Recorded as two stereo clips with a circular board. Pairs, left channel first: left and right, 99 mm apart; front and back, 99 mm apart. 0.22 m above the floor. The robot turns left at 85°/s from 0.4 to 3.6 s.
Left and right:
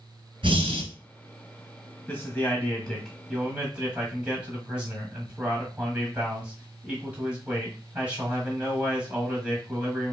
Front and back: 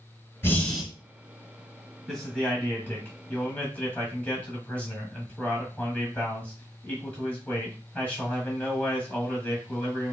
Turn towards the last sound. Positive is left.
turn(degrees=-45)